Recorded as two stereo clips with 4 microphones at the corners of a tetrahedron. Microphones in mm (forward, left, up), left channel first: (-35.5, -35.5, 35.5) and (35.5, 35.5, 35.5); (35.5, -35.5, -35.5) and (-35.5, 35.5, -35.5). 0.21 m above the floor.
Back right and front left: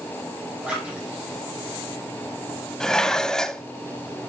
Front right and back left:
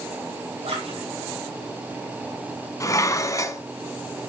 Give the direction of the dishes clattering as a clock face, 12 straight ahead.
2 o'clock.